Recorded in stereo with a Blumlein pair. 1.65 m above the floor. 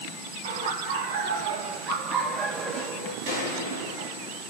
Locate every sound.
0.4 s laughter: 60° right, 3 m; by 3.2 s 30° left, 1.3 m
3.3 s a gunshot: 50° right, 2 m